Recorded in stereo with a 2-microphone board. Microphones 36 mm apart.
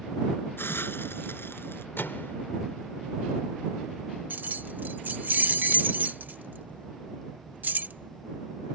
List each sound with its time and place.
0.6 s a hiss: 85° left
2.0 s a microwave: 85° left
4.3 s keys jangling: 55° right (ahead or behind)